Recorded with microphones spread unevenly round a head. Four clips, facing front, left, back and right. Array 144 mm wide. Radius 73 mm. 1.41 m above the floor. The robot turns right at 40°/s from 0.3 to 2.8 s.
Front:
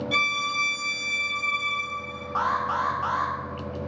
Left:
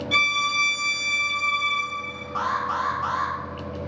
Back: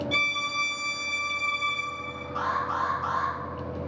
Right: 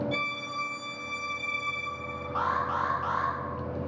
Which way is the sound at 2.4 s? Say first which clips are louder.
Left 3 dB, front 3 dB; straight ahead.